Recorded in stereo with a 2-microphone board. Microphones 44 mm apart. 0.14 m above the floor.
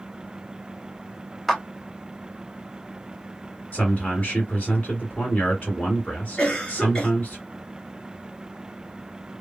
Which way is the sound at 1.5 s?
5° left (ahead or behind).